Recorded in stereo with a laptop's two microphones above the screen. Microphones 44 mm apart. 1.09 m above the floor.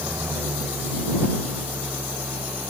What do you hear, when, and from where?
0.0 s an engine running: 65° right (ahead or behind)